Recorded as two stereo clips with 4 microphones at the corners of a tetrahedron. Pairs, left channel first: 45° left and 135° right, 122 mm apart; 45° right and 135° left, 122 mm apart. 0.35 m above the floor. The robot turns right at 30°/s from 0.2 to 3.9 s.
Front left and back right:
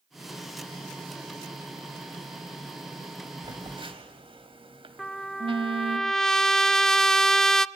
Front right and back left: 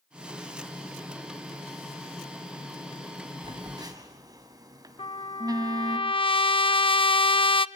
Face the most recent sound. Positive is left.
turn(degrees=-40)